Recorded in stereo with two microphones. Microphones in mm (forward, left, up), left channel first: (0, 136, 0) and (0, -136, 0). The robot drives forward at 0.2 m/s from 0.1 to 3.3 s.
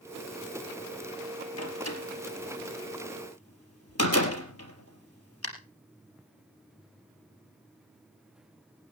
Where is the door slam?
60° left (ahead or behind), 3.5 m; by 5.5 s 55° left (ahead or behind), 3.5 m.